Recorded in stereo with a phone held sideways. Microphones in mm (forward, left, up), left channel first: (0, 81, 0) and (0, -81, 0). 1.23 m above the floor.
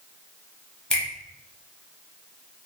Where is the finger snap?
5° left (ahead or behind), 1.0 m.